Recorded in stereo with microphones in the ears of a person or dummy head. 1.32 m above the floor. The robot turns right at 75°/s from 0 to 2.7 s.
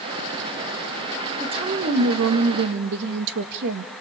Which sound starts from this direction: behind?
A woman speaking, at 1.4 s.